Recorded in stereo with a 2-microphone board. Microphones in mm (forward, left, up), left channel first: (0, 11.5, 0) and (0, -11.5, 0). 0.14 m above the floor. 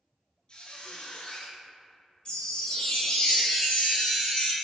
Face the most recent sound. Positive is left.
turn(degrees=35)  # may be behind; listen again after turning